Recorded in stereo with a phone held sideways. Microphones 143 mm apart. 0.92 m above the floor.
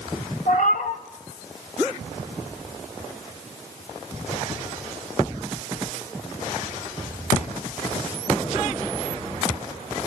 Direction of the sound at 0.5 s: 80° left.